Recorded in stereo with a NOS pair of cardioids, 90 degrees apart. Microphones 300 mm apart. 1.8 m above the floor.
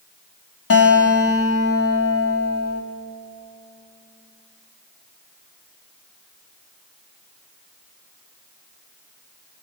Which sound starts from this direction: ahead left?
A guitar, at 0.7 s.